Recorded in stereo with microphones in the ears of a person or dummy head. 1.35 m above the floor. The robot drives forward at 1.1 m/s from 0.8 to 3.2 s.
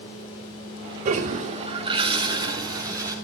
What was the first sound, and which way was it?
A toilet flushing, 40° right (ahead or behind).